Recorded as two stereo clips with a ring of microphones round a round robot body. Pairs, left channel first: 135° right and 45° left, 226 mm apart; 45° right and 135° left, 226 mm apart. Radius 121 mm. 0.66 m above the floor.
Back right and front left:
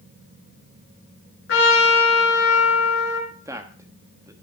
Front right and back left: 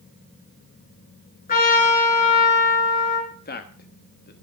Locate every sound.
1.5 s a trumpet: 100° right, 5.5 m
3.3 s a man speaking: 25° right, 1.1 m